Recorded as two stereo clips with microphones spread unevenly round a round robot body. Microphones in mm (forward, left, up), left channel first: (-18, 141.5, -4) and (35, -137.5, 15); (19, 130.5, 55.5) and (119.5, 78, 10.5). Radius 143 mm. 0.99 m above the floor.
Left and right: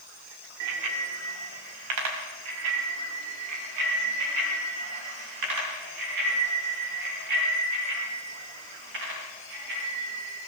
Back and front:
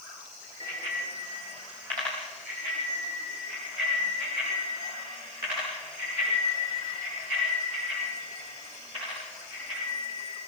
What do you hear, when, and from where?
0.6 s a bicycle bell: 110° right, 2.5 m; by 10.4 s 100° right, 15.5 m